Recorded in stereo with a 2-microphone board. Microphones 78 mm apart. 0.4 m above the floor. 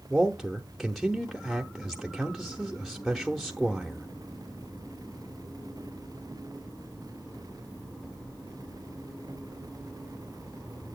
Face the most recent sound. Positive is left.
turn(degrees=0)  # may be behind; listen again after turning